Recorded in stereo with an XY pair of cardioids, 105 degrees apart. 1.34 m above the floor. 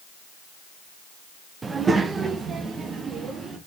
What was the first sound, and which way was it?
A child speaking, 30° right.